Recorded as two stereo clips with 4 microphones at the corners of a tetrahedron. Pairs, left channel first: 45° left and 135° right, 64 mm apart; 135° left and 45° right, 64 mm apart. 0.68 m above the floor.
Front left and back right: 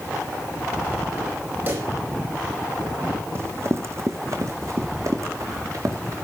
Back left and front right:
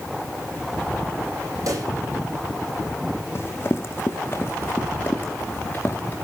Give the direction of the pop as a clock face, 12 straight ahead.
3 o'clock.